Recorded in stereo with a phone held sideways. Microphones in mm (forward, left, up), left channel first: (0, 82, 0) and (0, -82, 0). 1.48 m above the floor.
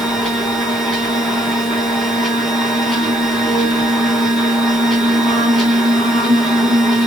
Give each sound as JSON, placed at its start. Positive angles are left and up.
{"t": 0.0, "sound": "a machine running", "side_deg": 0, "distance_m": 3.0}